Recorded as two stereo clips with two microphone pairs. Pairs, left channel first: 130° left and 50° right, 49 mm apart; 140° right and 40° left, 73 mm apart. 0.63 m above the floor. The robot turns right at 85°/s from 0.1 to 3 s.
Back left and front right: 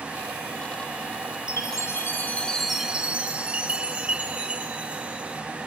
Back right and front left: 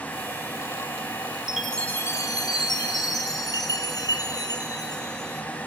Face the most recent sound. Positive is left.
turn(degrees=-115)